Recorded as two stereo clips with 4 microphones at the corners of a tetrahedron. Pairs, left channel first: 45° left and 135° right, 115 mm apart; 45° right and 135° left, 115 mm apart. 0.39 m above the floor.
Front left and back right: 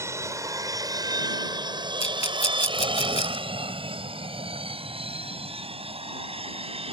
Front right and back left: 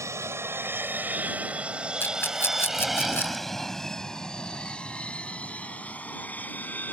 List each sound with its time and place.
0.0 s an aircraft: straight behind; by 6.9 s 120° right
2.0 s a rattle: 25° left